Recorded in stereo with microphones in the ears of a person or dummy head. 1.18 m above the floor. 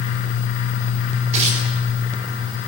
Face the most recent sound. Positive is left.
turn(degrees=-40)  # may be behind; listen again after turning